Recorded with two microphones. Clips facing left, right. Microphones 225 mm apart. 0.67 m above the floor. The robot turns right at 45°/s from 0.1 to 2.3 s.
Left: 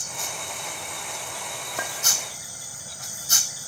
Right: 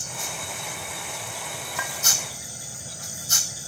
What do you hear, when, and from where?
1.8 s a clink: 45° left (ahead or behind), 1.0 m; by 1.9 s 40° left (ahead or behind), 1.0 m